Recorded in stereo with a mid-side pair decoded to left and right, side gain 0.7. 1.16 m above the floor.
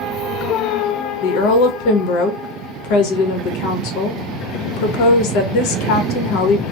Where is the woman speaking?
65° left, 0.8 m.